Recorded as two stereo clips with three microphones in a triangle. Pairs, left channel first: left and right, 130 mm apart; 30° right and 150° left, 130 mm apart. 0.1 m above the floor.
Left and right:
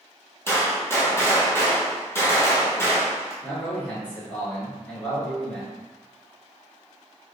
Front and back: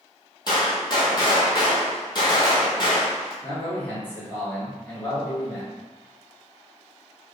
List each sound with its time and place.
0.5 s a gunshot: 20° left, 0.8 m
3.4 s a man speaking: 25° left, 1.2 m